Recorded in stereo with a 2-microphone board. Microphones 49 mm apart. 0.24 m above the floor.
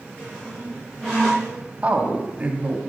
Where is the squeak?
10° left (ahead or behind), 4.5 m.